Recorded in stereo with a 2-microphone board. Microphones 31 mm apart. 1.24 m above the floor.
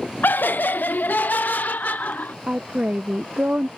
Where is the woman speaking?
55° right (ahead or behind).